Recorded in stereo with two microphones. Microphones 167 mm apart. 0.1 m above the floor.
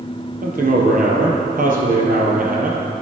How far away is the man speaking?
About 2.5 m.